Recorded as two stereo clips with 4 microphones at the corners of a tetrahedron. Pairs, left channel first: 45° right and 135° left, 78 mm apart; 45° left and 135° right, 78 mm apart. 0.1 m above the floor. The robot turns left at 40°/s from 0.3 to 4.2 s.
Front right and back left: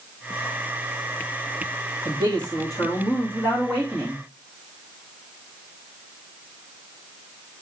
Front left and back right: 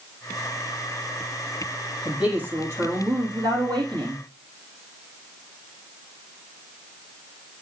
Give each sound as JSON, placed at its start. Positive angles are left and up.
{"t": 2.0, "sound": "a woman speaking", "azimuth_deg": -55, "distance_m": 4.0}